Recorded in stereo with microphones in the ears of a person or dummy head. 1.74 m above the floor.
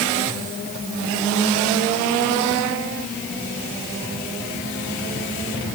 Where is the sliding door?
I don't hear a sliding door.